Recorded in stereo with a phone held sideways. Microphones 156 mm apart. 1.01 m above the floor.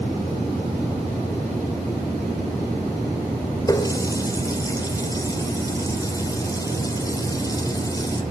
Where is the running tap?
25° left (ahead or behind), 2.5 m.